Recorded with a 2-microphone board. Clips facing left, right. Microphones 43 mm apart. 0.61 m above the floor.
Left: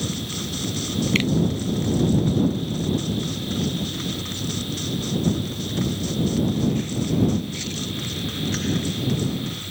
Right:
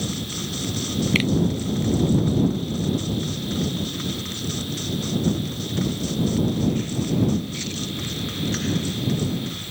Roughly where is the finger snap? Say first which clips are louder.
Even; centre.